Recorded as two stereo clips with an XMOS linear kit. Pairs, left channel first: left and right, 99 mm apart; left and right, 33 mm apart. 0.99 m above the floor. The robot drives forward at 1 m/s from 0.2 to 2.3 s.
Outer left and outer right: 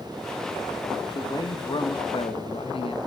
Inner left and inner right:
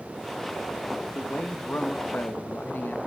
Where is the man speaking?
40° left (ahead or behind), 1.5 m; by 3.0 s 65° left (ahead or behind), 1.1 m.